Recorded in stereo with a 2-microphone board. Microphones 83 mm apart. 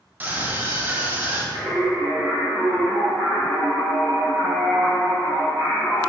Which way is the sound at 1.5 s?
20° right (ahead or behind).